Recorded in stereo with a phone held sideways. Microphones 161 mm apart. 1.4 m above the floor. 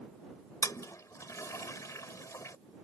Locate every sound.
0.6 s a toilet flushing: 20° left (ahead or behind)